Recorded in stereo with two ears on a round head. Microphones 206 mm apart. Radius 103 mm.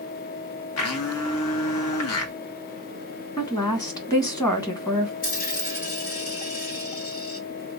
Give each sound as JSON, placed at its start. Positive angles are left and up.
{"t": 0.8, "sound": "a blender", "side_deg": 65, "distance_m": 1.1}
{"t": 3.4, "sound": "a woman speaking", "side_deg": 15, "distance_m": 1.4}
{"t": 5.2, "sound": "a dropped coin", "side_deg": 35, "distance_m": 1.5}